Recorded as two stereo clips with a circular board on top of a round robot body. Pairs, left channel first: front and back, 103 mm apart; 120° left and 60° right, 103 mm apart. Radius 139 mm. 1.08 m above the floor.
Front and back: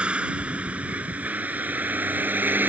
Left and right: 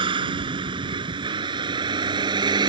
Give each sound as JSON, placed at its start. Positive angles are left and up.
{"t": 0.0, "sound": "a vehicle", "azimuth_deg": -100}